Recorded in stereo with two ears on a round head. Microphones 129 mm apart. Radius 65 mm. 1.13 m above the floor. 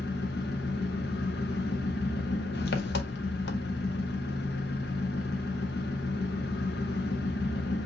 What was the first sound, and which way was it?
An engine running, 80° left.